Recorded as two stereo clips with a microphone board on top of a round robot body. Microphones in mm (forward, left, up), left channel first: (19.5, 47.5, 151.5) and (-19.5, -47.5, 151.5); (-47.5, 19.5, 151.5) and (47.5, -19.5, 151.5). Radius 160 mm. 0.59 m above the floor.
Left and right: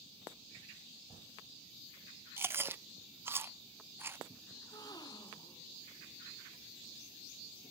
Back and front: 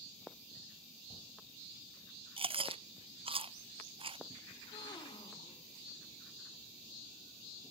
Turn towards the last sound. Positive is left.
turn(degrees=115)